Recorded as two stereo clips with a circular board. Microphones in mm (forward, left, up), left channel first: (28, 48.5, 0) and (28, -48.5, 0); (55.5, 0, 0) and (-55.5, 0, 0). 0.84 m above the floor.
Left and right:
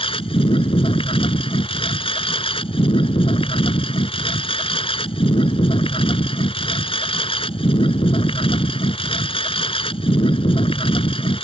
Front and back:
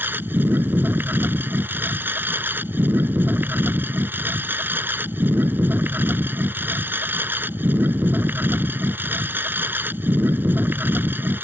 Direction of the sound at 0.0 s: 105° left.